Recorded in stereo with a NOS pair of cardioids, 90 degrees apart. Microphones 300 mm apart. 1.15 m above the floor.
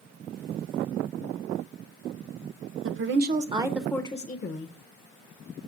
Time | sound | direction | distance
2.8 | a woman speaking | 45° right | 0.9 m